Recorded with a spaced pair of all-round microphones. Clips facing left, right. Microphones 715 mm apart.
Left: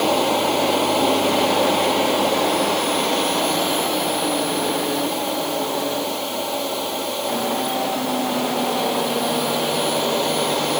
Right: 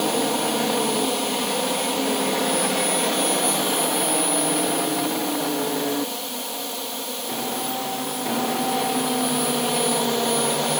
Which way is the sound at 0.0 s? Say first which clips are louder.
Left 3 dB; 90° left.